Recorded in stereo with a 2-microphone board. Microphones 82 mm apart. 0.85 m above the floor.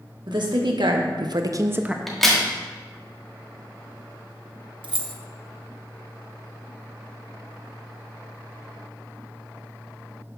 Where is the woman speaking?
65° right (ahead or behind), 1.3 m; by 2.0 s 10° right (ahead or behind), 0.5 m.